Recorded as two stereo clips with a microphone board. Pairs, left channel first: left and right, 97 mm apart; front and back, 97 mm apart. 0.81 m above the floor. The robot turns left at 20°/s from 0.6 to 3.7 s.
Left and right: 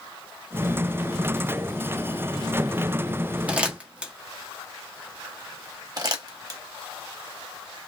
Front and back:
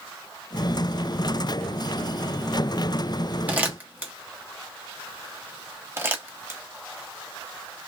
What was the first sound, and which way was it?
Crumpling, 140° right.